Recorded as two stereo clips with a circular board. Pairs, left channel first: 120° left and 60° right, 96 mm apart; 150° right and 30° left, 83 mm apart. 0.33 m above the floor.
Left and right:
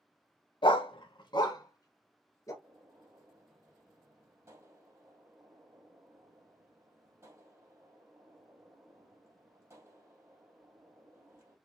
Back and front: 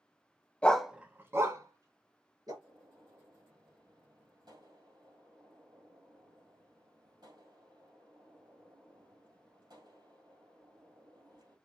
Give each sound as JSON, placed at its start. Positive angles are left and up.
{"t": 0.6, "sound": "a dog barking", "azimuth_deg": 140, "distance_m": 0.6}
{"t": 2.6, "sound": "a gunshot", "azimuth_deg": 0, "distance_m": 3.0}